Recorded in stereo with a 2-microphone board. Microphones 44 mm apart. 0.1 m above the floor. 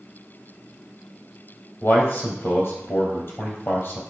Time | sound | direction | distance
1.8 | a man speaking | 60° left (ahead or behind) | 2.5 m